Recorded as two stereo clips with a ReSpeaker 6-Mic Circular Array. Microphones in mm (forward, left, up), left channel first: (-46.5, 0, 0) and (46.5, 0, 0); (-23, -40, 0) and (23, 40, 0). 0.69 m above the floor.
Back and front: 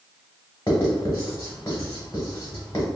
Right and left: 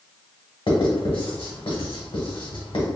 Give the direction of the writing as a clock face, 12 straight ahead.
4 o'clock.